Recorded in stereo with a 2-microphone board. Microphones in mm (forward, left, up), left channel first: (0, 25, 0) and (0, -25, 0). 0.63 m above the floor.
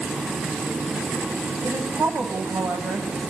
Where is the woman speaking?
55° right (ahead or behind), 4 m.